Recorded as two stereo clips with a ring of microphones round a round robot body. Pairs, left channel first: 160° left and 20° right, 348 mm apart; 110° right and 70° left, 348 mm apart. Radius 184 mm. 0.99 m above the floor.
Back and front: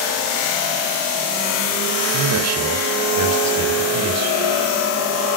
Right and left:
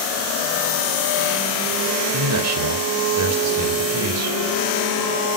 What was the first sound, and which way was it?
A man speaking, 20° left.